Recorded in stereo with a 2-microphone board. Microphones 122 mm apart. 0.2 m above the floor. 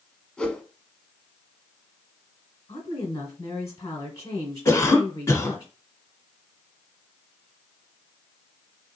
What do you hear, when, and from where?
0.4 s a whoosh: 10° left (ahead or behind), 0.7 m
2.7 s a woman speaking: 30° left (ahead or behind), 1.2 m
4.7 s a cough: 25° left (ahead or behind), 1.4 m